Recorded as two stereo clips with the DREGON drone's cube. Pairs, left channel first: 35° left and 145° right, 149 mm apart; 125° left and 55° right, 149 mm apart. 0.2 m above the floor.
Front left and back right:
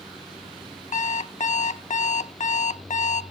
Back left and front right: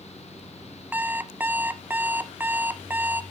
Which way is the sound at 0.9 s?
20° left.